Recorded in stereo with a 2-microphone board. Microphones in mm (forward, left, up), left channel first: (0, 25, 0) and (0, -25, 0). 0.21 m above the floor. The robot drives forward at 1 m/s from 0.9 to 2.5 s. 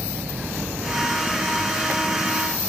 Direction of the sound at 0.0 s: 50° right (ahead or behind).